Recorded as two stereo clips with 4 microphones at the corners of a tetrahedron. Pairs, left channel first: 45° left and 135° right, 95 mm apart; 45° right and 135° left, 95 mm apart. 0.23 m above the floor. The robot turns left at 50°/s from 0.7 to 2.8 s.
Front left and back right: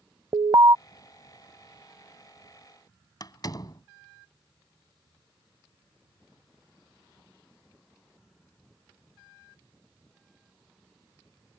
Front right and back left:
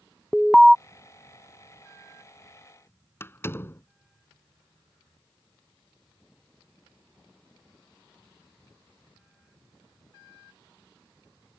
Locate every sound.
0.3 s an alarm: 140° right
3.2 s a door slam: 15° left